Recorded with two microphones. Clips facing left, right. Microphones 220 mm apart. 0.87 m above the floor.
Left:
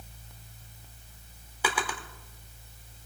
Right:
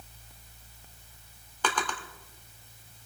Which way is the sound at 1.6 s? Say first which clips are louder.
Even; 10° left (ahead or behind).